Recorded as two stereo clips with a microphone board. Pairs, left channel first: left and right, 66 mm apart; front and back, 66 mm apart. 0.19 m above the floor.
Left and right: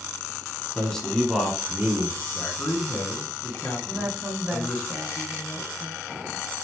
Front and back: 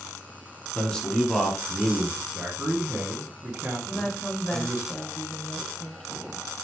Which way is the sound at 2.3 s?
145° left.